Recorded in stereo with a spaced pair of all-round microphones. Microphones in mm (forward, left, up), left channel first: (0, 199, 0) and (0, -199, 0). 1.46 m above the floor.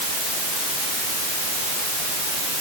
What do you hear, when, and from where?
Only background noise.